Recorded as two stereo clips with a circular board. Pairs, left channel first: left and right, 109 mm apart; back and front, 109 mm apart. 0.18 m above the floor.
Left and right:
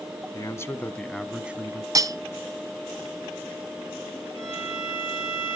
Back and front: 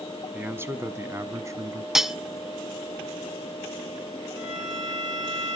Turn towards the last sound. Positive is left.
turn(degrees=-45)